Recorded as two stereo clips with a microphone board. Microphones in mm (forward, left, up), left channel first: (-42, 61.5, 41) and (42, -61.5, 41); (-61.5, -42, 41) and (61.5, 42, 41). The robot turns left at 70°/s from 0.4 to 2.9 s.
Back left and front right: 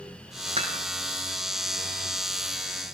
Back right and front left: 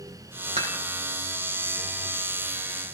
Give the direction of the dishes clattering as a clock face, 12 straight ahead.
12 o'clock.